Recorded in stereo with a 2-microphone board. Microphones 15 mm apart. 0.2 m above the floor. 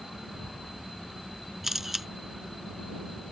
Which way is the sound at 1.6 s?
20° right (ahead or behind).